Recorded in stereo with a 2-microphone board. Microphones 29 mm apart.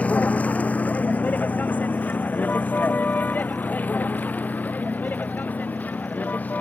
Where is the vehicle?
60° left (ahead or behind); by 6.6 s 75° left (ahead or behind).